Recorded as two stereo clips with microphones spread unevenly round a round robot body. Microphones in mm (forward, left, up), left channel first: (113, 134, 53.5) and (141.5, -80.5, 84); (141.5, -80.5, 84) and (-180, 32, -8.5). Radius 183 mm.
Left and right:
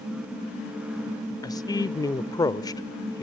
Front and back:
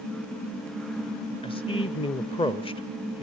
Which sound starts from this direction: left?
A man speaking, at 1.4 s.